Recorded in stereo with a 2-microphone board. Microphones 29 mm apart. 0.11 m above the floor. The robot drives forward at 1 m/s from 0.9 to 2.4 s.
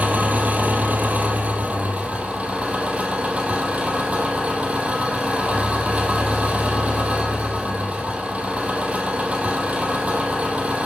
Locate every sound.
0.0 s an engine running: 65° right (ahead or behind), 2.5 m; by 10.9 s 45° right (ahead or behind), 3 m